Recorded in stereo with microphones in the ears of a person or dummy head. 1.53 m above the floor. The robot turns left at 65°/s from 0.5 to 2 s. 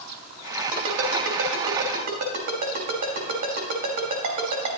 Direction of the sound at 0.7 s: 50° right (ahead or behind).